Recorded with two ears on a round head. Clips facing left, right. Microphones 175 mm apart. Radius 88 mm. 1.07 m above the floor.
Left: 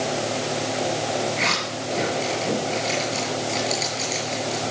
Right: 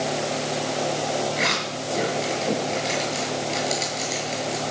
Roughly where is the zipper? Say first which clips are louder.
Even; centre.